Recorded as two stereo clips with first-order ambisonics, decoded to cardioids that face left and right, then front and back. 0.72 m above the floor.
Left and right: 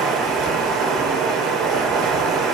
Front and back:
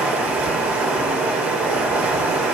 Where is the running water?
140° right, 3 m.